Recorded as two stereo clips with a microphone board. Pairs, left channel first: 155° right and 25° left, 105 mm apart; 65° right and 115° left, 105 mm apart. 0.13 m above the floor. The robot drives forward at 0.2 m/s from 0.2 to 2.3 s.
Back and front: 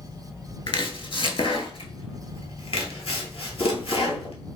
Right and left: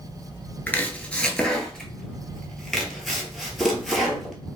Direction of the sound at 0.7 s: 140° right.